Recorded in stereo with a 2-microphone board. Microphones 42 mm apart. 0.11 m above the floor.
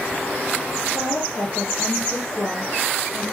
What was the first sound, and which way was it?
A woman speaking, 50° left (ahead or behind).